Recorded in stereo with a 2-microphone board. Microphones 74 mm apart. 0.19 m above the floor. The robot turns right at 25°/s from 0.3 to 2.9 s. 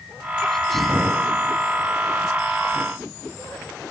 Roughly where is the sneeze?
Centre.